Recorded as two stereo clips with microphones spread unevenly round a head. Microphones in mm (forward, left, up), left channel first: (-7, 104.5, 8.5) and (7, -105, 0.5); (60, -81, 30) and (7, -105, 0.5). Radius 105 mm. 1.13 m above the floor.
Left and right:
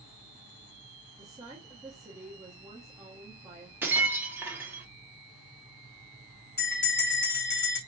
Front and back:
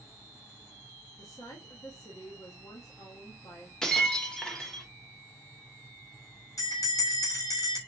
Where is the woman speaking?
10° right, 0.8 m.